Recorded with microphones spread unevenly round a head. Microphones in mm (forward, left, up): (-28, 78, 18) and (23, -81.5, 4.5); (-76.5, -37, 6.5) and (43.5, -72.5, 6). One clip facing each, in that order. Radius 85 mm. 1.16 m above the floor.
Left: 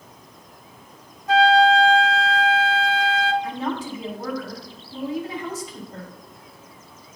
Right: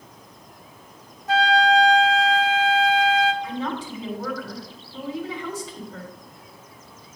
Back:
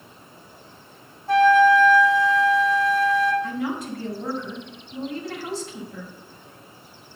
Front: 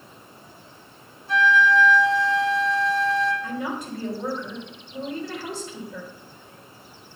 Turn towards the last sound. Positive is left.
turn(degrees=25)